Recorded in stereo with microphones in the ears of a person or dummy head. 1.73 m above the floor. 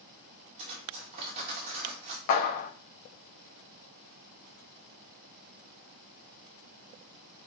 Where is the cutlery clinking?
35° right (ahead or behind), 1.6 m.